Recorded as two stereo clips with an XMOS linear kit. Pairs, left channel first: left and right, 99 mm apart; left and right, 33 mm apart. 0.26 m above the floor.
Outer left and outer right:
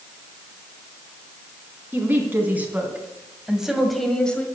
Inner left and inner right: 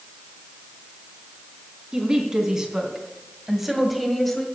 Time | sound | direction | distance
1.9 | a woman speaking | 20° right (ahead or behind) | 3 m